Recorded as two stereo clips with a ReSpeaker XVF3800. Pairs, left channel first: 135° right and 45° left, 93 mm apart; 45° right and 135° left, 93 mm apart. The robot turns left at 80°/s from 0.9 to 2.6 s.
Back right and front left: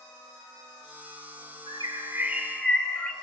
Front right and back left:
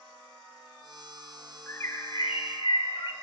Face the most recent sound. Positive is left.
turn(degrees=-50)